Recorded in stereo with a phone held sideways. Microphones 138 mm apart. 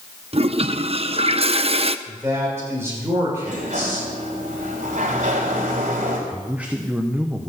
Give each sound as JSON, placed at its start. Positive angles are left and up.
{"t": 0.3, "sound": "a toilet flushing", "side_deg": -45, "distance_m": 0.5}
{"t": 2.1, "sound": "a man speaking", "side_deg": -20, "distance_m": 6.0}
{"t": 3.4, "sound": "a sliding door", "side_deg": -70, "distance_m": 4.0}
{"t": 6.3, "sound": "a man speaking", "side_deg": -10, "distance_m": 1.1}